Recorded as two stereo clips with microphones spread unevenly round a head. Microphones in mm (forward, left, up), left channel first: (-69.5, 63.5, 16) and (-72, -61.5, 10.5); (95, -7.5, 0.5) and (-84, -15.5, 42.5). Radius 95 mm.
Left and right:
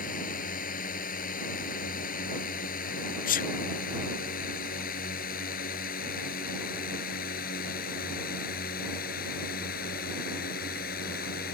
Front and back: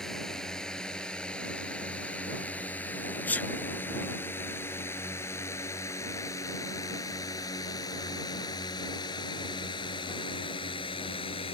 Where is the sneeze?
80° left.